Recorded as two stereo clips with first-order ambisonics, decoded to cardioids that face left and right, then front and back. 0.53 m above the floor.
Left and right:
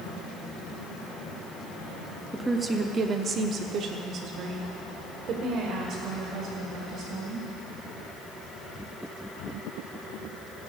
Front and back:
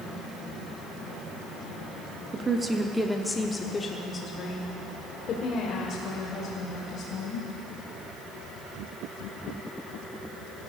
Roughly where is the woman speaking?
Behind.